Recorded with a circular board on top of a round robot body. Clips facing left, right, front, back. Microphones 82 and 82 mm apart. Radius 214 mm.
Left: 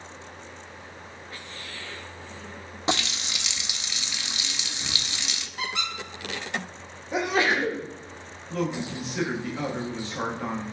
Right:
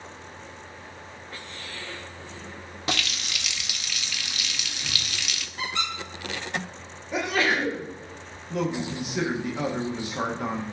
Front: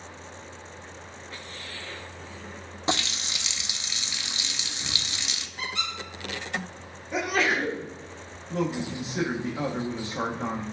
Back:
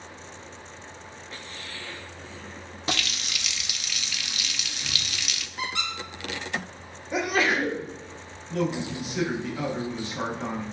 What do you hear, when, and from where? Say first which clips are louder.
2.9 s a running tap: left 3 dB, front 2 dB; 45° left, 0.5 m
5.6 s a squeak: right 1 dB, back 2 dB; 165° left, 2.5 m
7.1 s a sneeze: left 1 dB, back 1 dB; 105° left, 1.4 m
8.5 s a man speaking: right 1 dB, back 1 dB; 30° right, 1.1 m